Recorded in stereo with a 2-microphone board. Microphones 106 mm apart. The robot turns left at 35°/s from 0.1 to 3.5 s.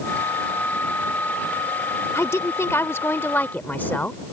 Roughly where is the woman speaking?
Left.